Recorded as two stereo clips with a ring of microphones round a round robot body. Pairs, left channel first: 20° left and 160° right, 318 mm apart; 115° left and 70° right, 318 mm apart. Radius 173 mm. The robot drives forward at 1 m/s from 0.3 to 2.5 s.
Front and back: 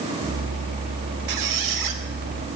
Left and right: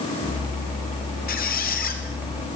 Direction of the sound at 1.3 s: 175° left.